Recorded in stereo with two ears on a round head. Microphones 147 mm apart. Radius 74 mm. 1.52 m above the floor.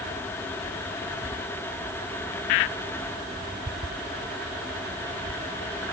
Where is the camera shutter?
I don't hear a camera shutter.